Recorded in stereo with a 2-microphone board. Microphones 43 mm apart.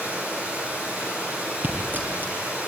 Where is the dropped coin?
50° right (ahead or behind), 4.5 m.